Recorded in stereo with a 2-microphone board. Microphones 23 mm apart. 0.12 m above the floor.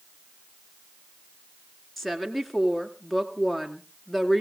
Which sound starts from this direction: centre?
A woman speaking, at 2.0 s.